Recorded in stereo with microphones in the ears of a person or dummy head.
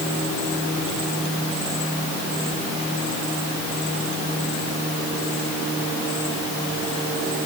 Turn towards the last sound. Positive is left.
No sound to turn to.